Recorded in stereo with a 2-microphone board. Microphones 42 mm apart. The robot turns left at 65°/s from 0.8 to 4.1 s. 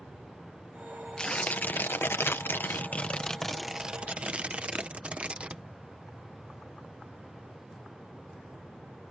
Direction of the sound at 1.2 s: 160° left.